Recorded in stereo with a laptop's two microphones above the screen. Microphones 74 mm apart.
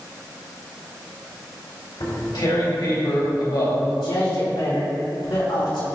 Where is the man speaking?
80° left, 4 m.